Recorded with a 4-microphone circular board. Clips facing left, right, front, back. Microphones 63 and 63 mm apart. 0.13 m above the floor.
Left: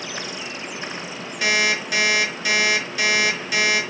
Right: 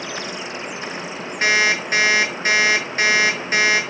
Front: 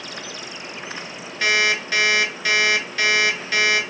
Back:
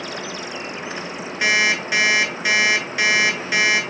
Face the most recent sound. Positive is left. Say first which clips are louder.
# right 3 dB, back 1 dB
turn(degrees=-115)